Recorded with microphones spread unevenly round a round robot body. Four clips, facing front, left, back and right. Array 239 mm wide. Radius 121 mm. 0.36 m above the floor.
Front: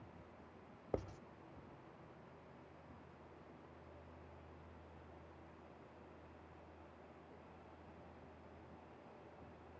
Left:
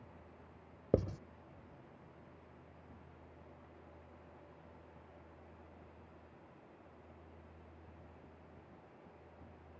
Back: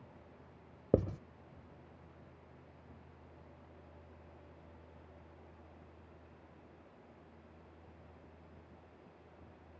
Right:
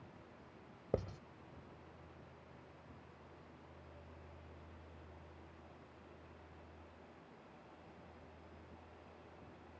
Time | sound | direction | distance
0.9 | writing | 155° left | ?